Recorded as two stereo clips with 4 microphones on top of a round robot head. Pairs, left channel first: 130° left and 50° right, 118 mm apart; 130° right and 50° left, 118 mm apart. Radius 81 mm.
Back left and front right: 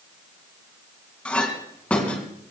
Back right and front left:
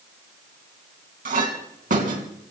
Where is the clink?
50° left, 3.5 m.